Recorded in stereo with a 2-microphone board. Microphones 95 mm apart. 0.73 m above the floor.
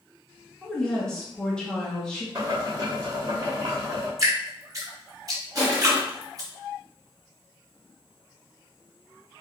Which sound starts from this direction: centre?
A woman speaking, at 0.6 s.